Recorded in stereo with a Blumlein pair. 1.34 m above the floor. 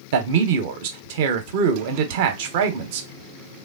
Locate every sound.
0.1 s a man speaking: 50° right, 0.8 m